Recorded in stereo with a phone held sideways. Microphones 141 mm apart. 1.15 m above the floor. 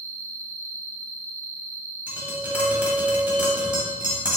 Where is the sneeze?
I don't hear a sneeze.